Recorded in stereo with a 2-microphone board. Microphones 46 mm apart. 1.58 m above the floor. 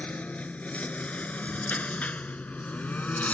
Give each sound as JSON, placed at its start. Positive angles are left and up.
{"t": 0.0, "sound": "a lawn mower", "side_deg": 30}